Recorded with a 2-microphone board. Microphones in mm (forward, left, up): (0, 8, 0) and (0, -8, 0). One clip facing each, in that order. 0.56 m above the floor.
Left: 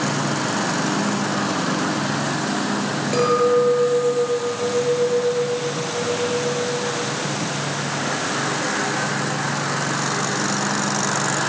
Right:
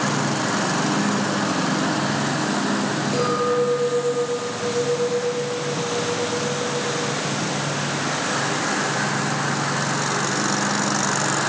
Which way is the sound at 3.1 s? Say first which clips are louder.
Left 5 dB; 30° left (ahead or behind).